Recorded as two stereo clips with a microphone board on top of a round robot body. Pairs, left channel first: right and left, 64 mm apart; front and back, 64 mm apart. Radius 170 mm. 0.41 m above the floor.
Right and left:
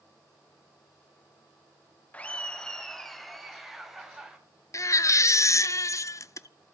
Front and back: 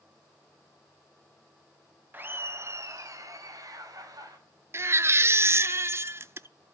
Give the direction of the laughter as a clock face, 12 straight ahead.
5 o'clock.